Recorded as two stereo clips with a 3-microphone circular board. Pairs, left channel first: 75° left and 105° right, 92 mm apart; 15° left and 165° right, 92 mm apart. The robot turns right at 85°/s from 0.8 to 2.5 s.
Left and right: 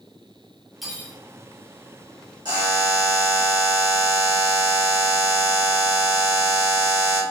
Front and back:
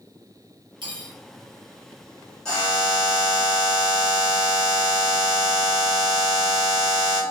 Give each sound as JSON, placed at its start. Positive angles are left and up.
{"t": 0.8, "sound": "cutlery clinking", "azimuth_deg": 165, "distance_m": 0.9}
{"t": 2.5, "sound": "a buzzer", "azimuth_deg": -65, "distance_m": 1.6}